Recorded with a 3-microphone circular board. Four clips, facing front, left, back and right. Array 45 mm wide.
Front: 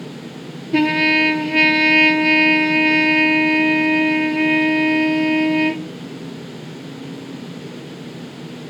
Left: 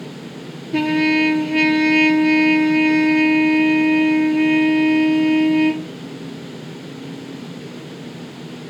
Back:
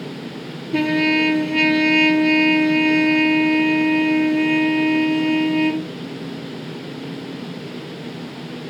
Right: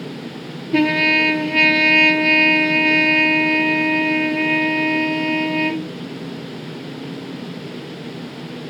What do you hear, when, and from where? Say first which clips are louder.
0.7 s a trumpet: right 1 dB, front 2 dB; 40° right, 0.5 m